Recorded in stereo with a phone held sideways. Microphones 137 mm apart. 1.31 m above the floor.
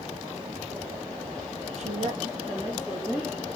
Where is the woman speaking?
55° right (ahead or behind), 0.7 m; by 3.5 s 15° right (ahead or behind), 2.5 m.